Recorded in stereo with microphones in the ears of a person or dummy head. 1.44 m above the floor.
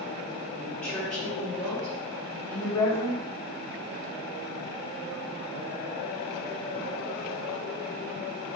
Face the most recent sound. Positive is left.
turn(degrees=20)  # may be behind; listen again after turning